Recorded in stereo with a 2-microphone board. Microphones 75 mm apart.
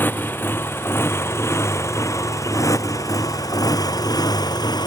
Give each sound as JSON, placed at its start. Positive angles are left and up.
{"t": 0.0, "sound": "a motorcycle", "side_deg": 30}